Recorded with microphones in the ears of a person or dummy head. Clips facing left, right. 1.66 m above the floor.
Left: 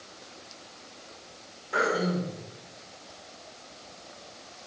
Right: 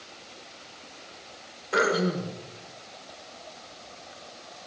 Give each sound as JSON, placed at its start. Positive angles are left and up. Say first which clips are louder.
{"t": 1.7, "sound": "throat clearing", "louder": "right 2 dB", "side_deg": -60, "distance_m": 1.7}